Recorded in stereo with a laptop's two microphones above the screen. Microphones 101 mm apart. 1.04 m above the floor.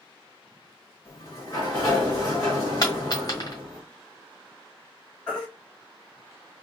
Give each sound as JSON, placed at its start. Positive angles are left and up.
{"t": 1.1, "sound": "a sliding door", "side_deg": 35, "distance_m": 1.4}
{"t": 2.8, "sound": "a dropped coin", "side_deg": 40, "distance_m": 1.4}
{"t": 5.3, "sound": "a baby crying", "side_deg": 10, "distance_m": 1.7}